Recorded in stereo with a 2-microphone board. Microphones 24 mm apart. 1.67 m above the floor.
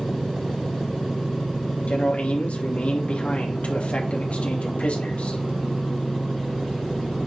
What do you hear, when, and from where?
1.9 s a man speaking: 60° left (ahead or behind), 2 m